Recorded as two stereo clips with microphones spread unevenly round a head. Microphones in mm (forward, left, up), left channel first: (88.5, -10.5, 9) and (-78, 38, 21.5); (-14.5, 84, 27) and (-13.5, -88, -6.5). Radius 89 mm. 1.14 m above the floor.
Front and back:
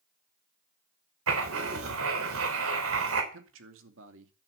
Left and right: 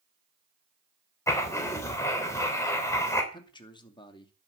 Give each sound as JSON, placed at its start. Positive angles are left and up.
{"t": 1.3, "sound": "writing", "azimuth_deg": 165, "distance_m": 3.5}
{"t": 3.3, "sound": "a man speaking", "azimuth_deg": 155, "distance_m": 2.5}